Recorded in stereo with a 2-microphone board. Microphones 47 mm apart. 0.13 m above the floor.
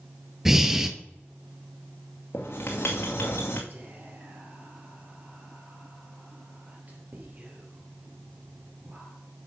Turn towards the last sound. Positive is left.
turn(degrees=-40)  # may be behind; listen again after turning